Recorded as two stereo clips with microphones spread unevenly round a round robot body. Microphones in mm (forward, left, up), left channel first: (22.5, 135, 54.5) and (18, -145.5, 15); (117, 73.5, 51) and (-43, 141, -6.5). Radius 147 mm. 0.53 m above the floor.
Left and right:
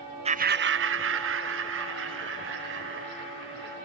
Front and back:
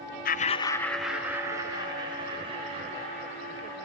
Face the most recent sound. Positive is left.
turn(degrees=-140)